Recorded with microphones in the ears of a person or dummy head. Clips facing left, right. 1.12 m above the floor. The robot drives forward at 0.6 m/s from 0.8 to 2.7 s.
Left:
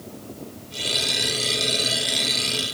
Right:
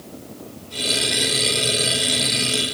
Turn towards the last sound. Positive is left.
No sound to turn to.